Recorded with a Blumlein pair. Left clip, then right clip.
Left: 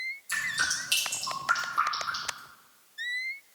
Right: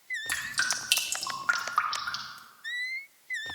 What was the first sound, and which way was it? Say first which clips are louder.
Dripping: left 1 dB; 25° right.